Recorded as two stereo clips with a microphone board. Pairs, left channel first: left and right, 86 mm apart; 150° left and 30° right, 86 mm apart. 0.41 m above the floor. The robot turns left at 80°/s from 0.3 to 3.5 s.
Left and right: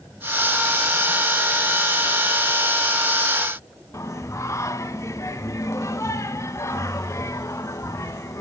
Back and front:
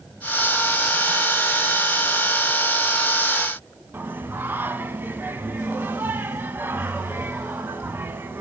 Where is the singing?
35° left, 0.8 m.